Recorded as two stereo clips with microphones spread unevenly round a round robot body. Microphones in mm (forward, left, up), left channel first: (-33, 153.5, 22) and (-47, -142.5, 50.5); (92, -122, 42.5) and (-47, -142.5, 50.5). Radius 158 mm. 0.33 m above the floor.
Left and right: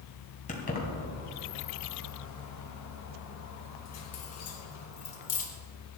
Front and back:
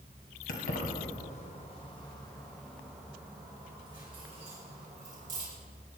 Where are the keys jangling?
25° left, 2 m; by 5.5 s 135° left, 3.5 m.